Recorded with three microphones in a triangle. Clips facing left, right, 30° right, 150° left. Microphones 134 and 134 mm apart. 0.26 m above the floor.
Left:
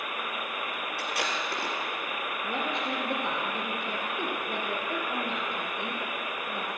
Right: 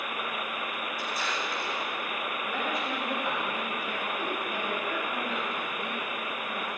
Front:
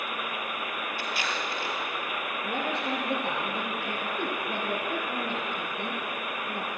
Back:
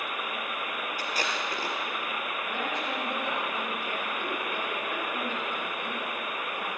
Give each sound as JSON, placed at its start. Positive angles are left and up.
{"t": 1.0, "sound": "tape being pulled", "azimuth_deg": 100, "distance_m": 4.0}
{"t": 2.4, "sound": "a woman speaking", "azimuth_deg": 25, "distance_m": 4.0}